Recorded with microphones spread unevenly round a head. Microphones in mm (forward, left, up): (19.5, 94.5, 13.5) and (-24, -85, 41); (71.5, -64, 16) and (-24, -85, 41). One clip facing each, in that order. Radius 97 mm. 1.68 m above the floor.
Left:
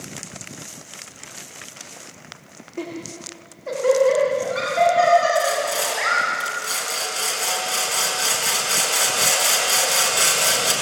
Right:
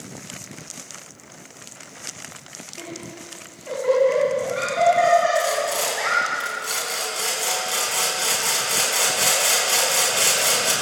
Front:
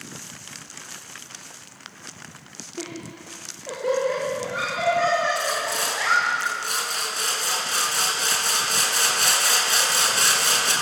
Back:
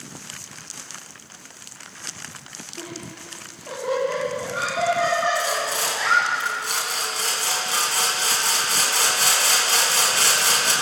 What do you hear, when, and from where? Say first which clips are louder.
2.8 s laughter: left 6 dB, front 2 dB; 105° left, 4.5 m; by 6.2 s 120° left, 7.5 m
5.3 s sawing: left 1 dB, back 1 dB; 170° left, 4.5 m